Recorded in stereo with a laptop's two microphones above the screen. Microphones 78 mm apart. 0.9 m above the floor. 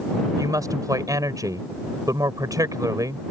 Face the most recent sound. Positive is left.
turn(degrees=-50)  # may be behind; listen again after turning